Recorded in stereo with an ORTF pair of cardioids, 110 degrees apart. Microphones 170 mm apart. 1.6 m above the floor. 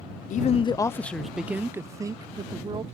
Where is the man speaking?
50° left; by 2.8 s 25° right.